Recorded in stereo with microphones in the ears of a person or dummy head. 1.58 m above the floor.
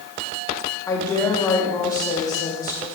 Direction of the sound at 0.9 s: 20° left (ahead or behind).